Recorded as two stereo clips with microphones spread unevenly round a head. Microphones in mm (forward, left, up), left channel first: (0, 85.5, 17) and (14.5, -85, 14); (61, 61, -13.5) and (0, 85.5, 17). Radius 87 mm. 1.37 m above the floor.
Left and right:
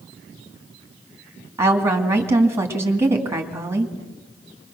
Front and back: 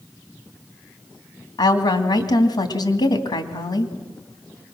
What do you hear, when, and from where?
1.6 s a woman speaking: 10° right, 2 m